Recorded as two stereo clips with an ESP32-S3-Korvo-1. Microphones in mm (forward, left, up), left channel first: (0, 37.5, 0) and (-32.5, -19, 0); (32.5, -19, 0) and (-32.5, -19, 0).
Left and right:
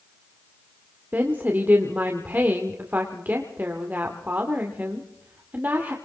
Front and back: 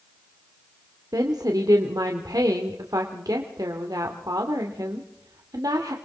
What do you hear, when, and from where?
1.1 s a woman speaking: straight behind, 2 m